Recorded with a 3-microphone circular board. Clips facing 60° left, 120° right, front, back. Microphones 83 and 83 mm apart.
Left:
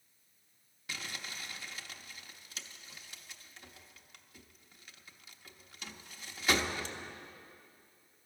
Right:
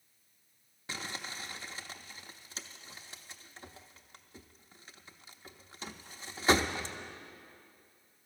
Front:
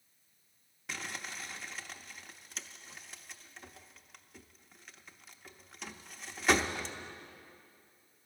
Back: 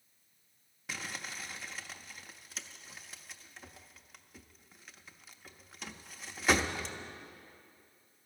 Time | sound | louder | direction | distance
0.9 | crumpling | right 3 dB, even | 95° right | 0.7 m